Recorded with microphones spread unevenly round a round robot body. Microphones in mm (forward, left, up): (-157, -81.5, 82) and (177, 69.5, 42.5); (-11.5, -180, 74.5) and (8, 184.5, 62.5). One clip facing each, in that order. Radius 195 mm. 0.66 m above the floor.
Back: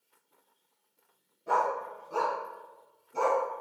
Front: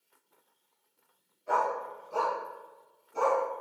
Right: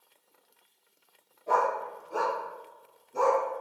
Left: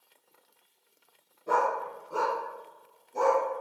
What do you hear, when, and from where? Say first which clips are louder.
1.5 s a dog barking: back 1 dB, even; 160° left, 3.5 m; by 3.4 s 160° right, 2.5 m